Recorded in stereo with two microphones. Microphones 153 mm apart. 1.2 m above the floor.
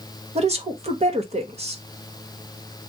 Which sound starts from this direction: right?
A woman speaking, at 0.3 s.